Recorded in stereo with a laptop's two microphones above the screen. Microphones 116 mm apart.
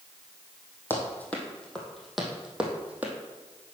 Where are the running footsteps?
20° left (ahead or behind), 2.5 m; by 3.1 s 15° right (ahead or behind), 2.5 m.